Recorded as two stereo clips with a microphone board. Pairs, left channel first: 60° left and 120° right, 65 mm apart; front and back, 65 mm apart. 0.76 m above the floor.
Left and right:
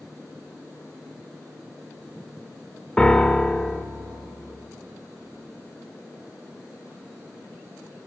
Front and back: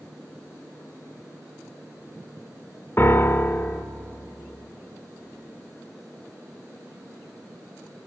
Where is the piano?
Straight ahead, 0.9 m.